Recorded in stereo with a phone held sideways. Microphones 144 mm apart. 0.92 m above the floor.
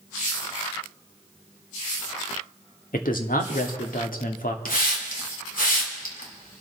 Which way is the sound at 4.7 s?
75° left (ahead or behind).